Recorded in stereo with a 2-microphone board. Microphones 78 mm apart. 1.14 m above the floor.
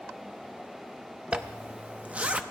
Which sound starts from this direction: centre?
A zipper, at 1.3 s.